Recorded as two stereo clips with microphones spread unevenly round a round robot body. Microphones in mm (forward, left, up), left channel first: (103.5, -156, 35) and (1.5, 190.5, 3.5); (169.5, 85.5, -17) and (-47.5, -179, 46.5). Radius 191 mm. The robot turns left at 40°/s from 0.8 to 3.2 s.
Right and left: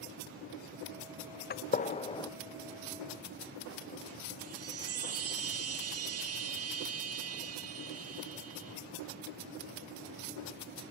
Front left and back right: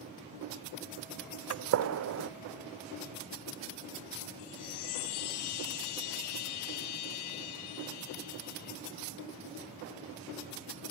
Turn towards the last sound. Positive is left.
turn(degrees=55)